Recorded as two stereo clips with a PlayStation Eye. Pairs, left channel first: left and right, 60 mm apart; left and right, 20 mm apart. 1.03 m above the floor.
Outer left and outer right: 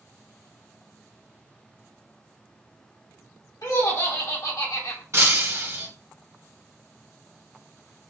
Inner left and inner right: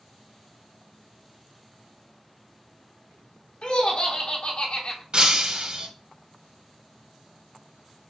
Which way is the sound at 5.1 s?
50° right (ahead or behind).